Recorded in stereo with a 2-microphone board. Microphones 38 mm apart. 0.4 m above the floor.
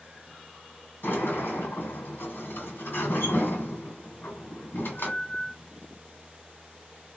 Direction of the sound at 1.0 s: 70° left (ahead or behind).